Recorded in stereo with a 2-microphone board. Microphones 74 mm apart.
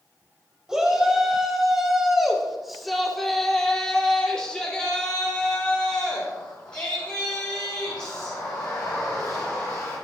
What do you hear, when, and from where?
0.7 s a shout: 5° right (ahead or behind), 2.5 m; by 9.9 s 15° left (ahead or behind), 4.5 m